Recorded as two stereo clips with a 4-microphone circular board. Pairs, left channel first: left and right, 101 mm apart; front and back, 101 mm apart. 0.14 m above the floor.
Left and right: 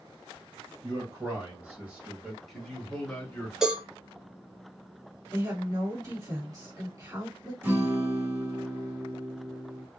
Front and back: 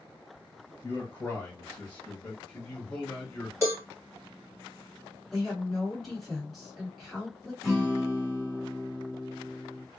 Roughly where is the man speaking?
Ahead right.